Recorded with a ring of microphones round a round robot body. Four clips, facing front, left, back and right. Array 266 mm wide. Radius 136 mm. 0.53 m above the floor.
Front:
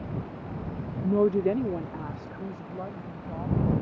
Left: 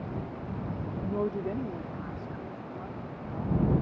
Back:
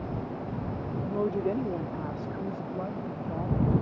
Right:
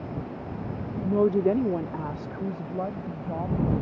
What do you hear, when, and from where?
1.0 s a woman speaking: 30° right; by 3.7 s 105° right